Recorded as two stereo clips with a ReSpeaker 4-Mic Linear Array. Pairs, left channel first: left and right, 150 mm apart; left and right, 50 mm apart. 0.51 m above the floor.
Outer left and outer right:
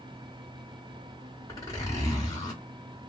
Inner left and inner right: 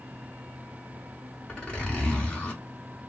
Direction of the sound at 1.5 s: 20° left (ahead or behind).